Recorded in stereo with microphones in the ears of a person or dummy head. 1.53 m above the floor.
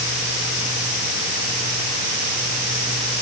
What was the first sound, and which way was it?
Only background noise.